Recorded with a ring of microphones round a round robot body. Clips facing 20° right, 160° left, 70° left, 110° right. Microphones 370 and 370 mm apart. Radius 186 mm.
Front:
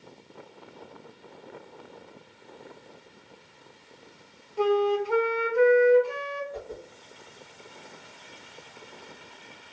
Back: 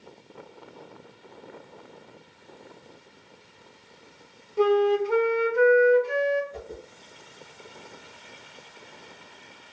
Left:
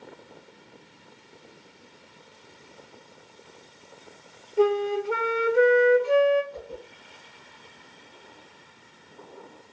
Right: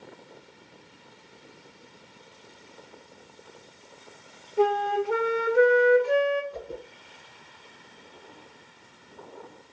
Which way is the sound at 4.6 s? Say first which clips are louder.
Back 3 dB, left 2 dB; 150° left.